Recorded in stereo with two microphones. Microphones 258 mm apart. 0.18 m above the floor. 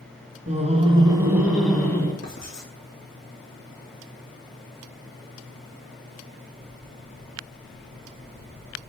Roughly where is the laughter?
Right.